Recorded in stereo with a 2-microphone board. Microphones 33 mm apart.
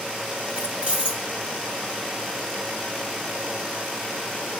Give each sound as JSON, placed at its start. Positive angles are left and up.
{"t": 0.5, "sound": "keys jangling", "side_deg": -25, "distance_m": 1.2}